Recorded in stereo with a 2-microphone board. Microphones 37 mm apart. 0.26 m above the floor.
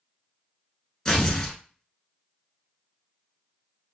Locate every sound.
1.1 s tearing paper: 15° left (ahead or behind), 0.9 m